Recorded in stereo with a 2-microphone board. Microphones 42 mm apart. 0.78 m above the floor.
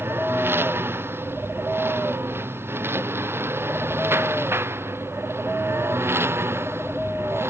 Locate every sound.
0.0 s a lawn mower: 65° right (ahead or behind); by 7.5 s 80° right